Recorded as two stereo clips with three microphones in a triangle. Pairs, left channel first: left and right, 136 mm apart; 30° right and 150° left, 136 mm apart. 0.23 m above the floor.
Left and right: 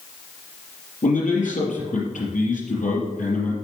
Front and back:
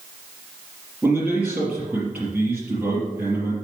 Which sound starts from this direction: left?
A man speaking, at 1.0 s.